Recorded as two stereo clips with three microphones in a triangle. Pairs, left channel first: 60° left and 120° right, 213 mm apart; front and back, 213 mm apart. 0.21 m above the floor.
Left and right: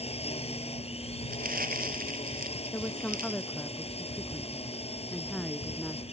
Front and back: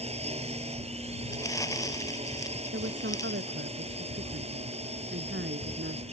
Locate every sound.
0.0 s a drone: 120° left
1.3 s crumpling: 75° right
2.7 s a woman speaking: 145° left